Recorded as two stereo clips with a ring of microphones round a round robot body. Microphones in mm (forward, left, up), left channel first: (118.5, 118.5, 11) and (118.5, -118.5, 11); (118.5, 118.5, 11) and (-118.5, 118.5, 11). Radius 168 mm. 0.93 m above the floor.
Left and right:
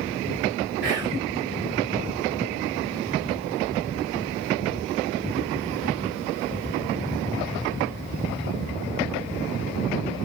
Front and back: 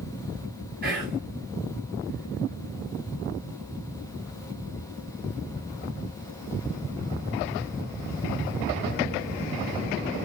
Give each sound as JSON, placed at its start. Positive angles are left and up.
{"t": 0.8, "sound": "whispering", "azimuth_deg": -130, "distance_m": 1.1}